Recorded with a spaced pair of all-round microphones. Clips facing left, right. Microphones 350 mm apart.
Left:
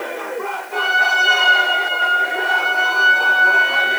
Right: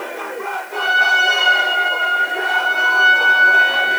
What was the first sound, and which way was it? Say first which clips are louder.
A trumpet: right 1 dB; 65° left (ahead or behind).